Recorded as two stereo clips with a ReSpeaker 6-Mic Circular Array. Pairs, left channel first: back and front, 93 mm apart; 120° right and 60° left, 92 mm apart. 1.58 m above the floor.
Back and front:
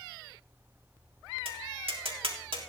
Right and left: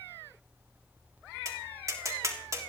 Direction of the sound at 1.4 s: 5° left.